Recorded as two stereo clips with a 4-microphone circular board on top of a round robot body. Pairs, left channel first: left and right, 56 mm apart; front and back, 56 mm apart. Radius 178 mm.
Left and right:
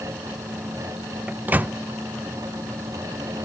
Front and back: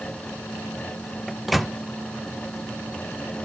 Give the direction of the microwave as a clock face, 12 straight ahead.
3 o'clock.